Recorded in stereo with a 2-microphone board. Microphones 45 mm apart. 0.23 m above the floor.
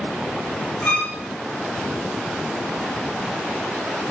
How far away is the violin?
About 4 m.